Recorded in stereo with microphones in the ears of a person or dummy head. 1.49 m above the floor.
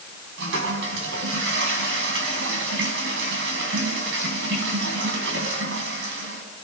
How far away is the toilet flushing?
About 5 m.